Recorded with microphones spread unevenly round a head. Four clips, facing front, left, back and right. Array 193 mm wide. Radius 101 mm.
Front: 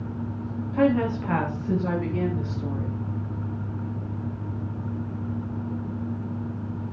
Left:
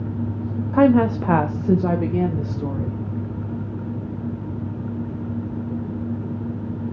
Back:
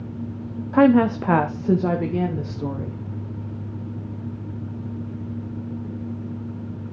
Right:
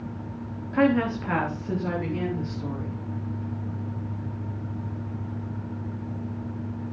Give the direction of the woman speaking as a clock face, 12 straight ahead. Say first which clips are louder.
Left 6 dB, back 7 dB; 7 o'clock.